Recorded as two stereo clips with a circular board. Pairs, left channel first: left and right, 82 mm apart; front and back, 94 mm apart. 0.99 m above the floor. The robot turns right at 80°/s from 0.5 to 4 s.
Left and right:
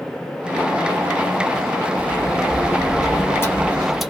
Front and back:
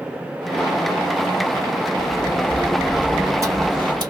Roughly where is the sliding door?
Ahead.